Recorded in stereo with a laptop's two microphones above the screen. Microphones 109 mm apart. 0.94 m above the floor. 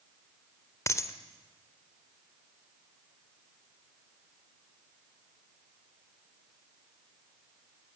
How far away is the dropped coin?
About 1.6 m.